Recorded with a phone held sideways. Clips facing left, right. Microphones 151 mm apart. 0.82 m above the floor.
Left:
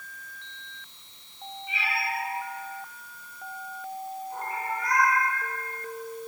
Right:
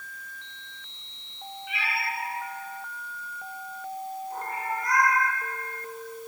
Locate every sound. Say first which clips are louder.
1.7 s a cat meowing: left 1 dB; 70° right (ahead or behind), 4.5 m; by 5.2 s 45° right (ahead or behind), 7.5 m